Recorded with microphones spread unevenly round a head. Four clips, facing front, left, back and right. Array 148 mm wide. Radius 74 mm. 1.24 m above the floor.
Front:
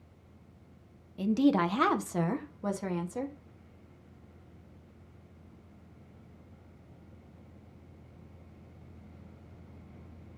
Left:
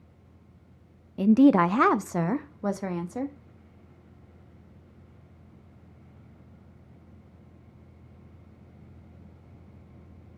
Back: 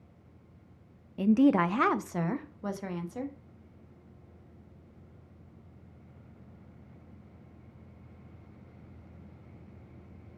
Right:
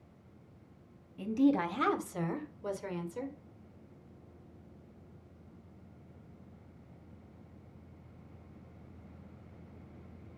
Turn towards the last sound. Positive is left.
turn(degrees=75)